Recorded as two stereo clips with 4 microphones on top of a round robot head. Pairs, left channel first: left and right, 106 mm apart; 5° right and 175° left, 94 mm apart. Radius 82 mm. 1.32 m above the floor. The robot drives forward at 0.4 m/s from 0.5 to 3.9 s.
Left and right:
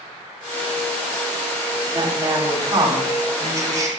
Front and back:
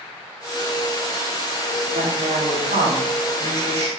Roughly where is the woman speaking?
Behind right.